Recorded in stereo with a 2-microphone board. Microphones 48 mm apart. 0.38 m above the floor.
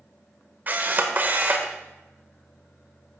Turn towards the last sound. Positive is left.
turn(degrees=-40)  # may be behind; listen again after turning